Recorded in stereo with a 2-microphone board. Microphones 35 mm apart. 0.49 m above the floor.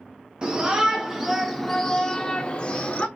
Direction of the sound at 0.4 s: 25° right (ahead or behind).